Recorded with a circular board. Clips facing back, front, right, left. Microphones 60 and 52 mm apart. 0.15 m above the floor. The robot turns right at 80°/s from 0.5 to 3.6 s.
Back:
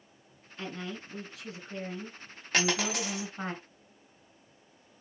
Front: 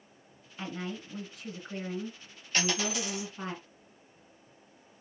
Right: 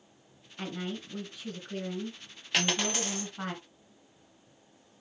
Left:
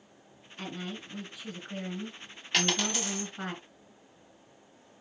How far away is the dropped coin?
About 2 m.